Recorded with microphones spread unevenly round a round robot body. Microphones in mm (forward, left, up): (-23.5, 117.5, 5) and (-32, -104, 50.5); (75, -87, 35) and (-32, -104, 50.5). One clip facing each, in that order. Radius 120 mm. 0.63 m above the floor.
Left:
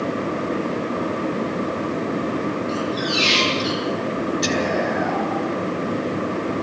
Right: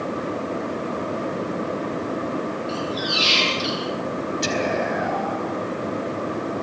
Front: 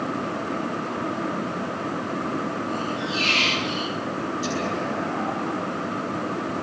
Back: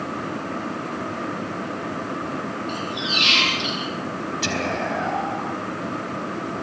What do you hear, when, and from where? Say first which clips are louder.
2.7 s a squeak: left 3 dB, front 1 dB; 170° right, 5.5 m
4.4 s whispering: left 2 dB, back 3 dB; straight behind, 4 m